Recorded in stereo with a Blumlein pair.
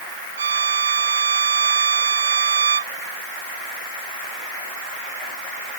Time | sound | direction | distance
0.4 | a violin | 70° right | ?